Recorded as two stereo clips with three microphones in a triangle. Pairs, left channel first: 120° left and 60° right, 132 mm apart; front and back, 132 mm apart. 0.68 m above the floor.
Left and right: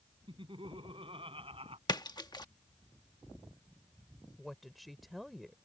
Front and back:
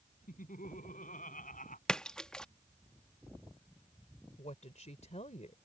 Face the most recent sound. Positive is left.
turn(degrees=30)